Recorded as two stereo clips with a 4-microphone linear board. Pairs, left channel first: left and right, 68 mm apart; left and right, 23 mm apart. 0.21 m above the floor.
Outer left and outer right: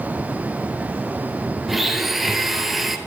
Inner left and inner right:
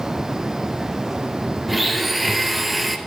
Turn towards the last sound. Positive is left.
turn(degrees=0)  # may be behind; listen again after turning